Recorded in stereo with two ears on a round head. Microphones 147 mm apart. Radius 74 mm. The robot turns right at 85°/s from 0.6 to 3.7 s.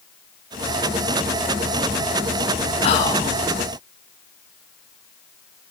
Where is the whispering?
135° left, 2.0 m; by 3.3 s straight behind, 2.0 m.